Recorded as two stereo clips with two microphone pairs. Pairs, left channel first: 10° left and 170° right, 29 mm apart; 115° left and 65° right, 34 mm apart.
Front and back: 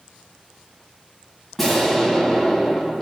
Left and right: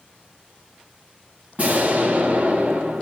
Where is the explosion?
75° right, 2 m.